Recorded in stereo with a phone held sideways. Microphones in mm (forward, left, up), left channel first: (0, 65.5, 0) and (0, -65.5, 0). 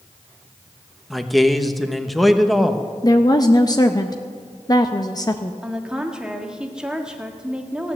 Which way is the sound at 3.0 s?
30° left (ahead or behind).